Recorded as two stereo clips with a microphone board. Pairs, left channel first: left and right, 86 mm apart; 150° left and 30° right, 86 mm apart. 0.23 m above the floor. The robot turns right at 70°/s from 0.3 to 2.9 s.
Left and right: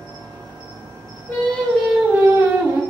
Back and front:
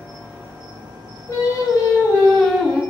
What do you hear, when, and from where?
0.0 s an insect: 95° right, 0.9 m; by 2.9 s 85° left, 0.9 m
1.3 s singing: 140° left, 0.6 m; by 2.8 s 110° right, 0.6 m